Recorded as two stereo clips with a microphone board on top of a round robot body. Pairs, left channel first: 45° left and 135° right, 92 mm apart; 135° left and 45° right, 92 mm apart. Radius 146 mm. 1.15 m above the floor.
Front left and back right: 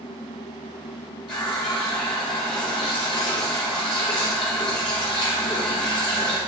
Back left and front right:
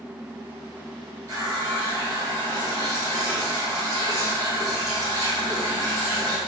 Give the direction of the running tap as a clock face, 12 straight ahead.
12 o'clock.